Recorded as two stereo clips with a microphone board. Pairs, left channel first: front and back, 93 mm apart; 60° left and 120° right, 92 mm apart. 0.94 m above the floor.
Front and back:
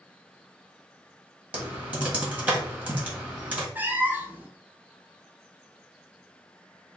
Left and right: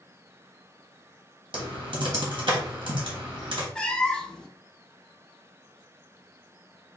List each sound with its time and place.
1.5 s typing on a keyboard: 110° right, 1.4 m
3.8 s a cat meowing: 130° left, 0.5 m